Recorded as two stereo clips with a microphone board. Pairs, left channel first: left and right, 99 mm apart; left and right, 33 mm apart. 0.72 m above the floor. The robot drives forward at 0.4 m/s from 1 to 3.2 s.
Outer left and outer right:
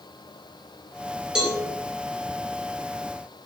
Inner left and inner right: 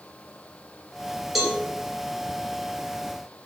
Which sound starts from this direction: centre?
A cowbell, at 1.4 s.